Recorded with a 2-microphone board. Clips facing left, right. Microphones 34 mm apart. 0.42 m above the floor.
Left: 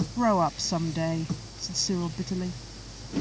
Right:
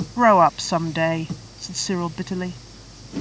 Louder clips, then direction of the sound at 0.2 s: Right 10 dB; 55° right (ahead or behind).